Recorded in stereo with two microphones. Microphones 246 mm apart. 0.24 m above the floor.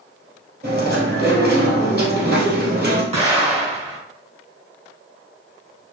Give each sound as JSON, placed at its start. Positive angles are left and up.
{"t": 0.6, "sound": "chewing", "side_deg": -45, "distance_m": 2.0}
{"t": 3.1, "sound": "an explosion", "side_deg": -25, "distance_m": 1.8}